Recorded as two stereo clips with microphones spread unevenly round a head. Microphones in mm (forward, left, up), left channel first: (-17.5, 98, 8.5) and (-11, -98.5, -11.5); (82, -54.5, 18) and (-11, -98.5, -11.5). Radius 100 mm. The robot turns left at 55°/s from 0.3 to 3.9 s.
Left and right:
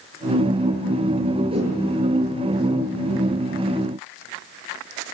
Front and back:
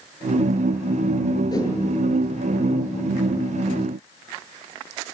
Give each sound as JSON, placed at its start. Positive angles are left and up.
{"t": 1.5, "sound": "a whoosh", "azimuth_deg": -20, "distance_m": 7.5}